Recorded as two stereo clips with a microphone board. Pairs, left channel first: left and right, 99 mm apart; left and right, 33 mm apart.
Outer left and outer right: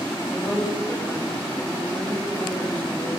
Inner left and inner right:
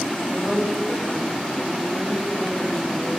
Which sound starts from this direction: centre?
A woman speaking, at 0.3 s.